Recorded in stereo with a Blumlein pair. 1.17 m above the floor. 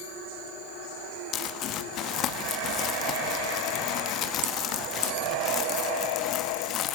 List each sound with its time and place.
1.3 s crumpling: 35° left, 1.8 m